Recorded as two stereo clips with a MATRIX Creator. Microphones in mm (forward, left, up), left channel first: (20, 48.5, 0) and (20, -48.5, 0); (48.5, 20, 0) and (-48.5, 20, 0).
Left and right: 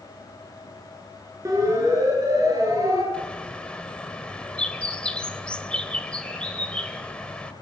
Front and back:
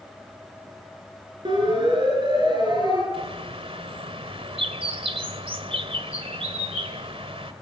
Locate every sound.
1.4 s a siren: 145° right, 8.5 m; by 3.0 s 140° right, 10.5 m
3.1 s a bird: 170° left, 2.0 m